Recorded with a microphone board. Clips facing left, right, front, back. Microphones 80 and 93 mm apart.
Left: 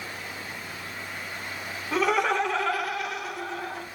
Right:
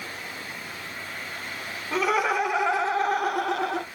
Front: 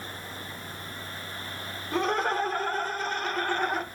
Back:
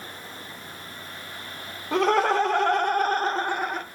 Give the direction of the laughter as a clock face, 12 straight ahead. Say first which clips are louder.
Even, back 6 dB; 6 o'clock.